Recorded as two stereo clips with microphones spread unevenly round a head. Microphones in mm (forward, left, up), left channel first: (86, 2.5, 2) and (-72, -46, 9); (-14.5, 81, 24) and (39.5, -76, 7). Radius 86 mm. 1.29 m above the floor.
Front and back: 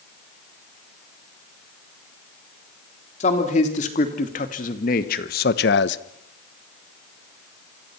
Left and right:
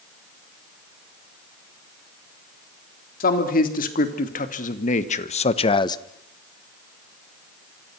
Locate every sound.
3.2 s a man speaking: 70° left, 3.5 m; by 6.0 s 40° left, 0.8 m